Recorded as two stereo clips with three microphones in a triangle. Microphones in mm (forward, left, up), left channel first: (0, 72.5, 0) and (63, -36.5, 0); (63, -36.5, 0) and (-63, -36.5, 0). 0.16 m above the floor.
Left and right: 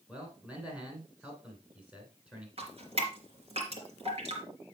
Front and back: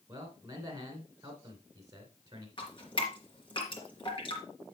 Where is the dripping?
40° right, 3 m.